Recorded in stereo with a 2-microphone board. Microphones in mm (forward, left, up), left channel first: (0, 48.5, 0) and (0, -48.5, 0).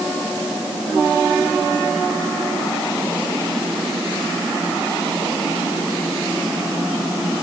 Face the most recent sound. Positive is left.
No sound to turn to.